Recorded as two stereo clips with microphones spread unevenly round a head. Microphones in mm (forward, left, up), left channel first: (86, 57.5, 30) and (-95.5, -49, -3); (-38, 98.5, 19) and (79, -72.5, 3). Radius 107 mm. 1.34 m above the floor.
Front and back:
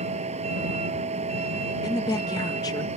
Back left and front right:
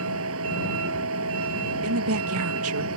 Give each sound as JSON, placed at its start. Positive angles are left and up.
{"t": 0.0, "sound": "a vehicle", "azimuth_deg": -85}
{"t": 1.8, "sound": "a woman speaking", "azimuth_deg": -45}